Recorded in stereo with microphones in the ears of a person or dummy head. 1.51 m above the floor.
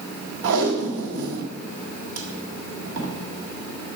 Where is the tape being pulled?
55° right (ahead or behind), 1.5 m.